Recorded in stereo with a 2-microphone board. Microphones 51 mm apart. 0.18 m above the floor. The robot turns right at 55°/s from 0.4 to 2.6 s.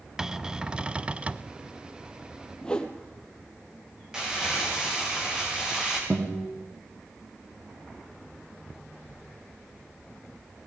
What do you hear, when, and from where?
0.2 s a cupboard door: 10° right (ahead or behind), 0.7 m; by 1.5 s 25° right (ahead or behind), 0.7 m
2.6 s a whoosh: 15° left (ahead or behind), 2.5 m
4.1 s crumpling: 15° right (ahead or behind), 8.5 m
6.1 s a guitar: 30° right (ahead or behind), 5.5 m